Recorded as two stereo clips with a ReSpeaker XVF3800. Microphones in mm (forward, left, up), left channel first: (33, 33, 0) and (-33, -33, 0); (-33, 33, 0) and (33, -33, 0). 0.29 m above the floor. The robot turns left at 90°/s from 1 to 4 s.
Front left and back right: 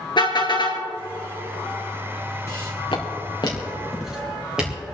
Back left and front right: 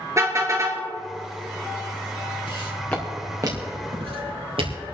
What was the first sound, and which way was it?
A car horn, 10° left.